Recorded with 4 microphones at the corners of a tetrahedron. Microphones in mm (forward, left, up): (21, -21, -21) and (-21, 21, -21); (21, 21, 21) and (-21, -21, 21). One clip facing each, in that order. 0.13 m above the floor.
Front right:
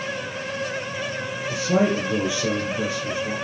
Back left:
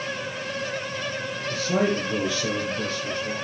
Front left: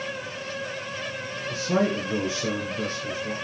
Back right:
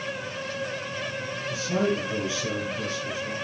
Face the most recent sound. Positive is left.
turn(degrees=30)